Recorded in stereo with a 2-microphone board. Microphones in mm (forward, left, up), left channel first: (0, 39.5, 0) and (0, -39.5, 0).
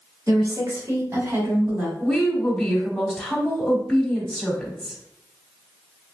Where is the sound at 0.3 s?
45° right (ahead or behind), 1.8 m; by 1.9 s 20° right (ahead or behind), 1.2 m.